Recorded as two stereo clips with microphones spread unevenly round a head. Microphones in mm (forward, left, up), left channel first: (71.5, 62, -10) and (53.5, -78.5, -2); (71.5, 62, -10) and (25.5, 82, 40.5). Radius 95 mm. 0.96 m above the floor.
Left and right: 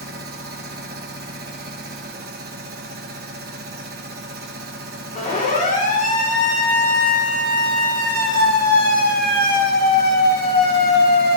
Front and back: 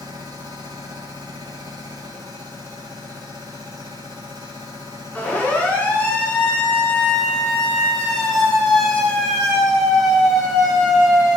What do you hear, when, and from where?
0.0 s a machine running: 135° right, 1.8 m
5.2 s a siren: 45° left, 9 m; by 11.4 s 85° left, 6 m